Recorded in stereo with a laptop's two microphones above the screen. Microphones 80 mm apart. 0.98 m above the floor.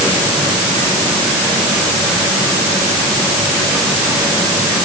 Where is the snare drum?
I don't hear a snare drum.